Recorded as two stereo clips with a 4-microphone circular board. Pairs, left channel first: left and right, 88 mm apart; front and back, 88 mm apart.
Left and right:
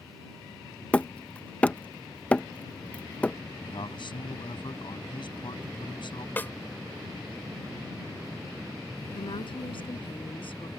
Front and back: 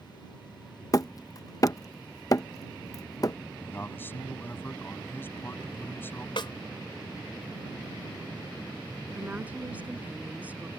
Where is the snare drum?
20° left.